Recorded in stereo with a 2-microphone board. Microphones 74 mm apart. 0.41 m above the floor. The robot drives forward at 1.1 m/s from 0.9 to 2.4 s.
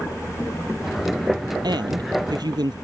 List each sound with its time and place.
1.6 s a woman speaking: 70° right (ahead or behind)